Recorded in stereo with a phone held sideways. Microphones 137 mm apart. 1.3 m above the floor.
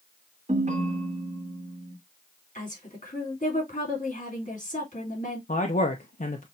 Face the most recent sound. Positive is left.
turn(degrees=75)  # may be behind; listen again after turning